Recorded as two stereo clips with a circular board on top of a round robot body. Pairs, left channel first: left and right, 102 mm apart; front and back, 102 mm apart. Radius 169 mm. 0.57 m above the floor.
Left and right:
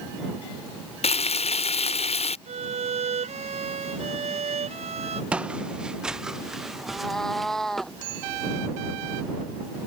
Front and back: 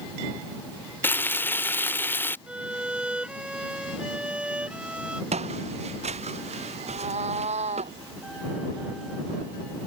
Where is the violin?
100° right.